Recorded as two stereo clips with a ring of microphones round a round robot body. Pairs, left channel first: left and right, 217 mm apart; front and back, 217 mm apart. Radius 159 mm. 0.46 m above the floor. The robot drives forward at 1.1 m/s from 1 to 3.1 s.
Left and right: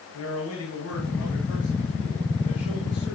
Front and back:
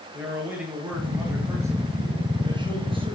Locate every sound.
0.1 s a man speaking: 100° left, 7 m; by 3.1 s 115° left, 8 m